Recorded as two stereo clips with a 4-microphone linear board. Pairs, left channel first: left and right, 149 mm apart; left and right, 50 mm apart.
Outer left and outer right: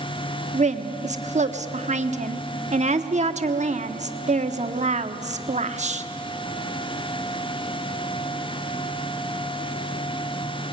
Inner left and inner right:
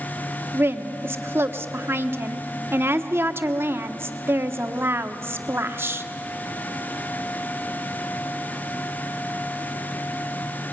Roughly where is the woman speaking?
Right.